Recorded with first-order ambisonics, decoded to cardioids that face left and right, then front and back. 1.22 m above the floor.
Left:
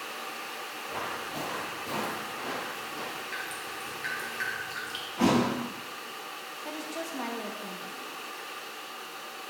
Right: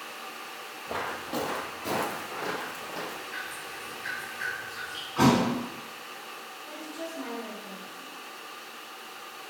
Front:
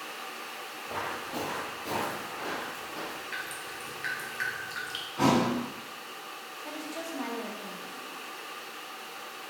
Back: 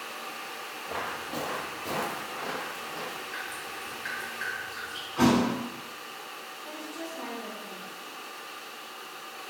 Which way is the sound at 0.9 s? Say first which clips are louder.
Right 3 dB, even; 95° right.